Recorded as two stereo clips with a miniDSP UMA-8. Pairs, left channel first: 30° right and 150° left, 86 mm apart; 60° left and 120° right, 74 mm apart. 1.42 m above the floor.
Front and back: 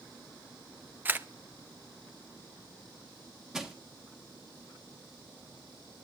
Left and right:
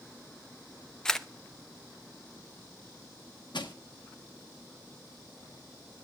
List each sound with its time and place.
1.1 s a camera shutter: 130° left, 0.7 m
3.5 s crushing: 65° left, 1.4 m